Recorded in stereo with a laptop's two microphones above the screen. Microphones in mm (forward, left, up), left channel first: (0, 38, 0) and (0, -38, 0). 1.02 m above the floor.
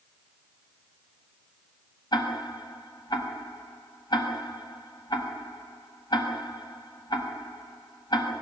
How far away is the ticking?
About 6.5 m.